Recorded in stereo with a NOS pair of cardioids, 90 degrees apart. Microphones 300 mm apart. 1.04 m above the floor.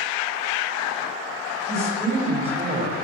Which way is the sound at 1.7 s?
10° right.